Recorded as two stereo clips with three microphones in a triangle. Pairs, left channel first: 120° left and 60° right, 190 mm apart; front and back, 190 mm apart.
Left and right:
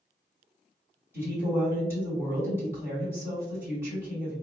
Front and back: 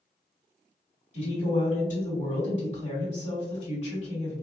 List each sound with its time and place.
1.1 s a woman speaking: 10° left, 1.9 m